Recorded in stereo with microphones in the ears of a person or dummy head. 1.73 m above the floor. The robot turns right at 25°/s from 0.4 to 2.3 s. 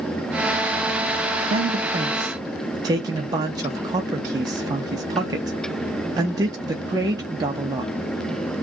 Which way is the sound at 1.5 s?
45° right (ahead or behind).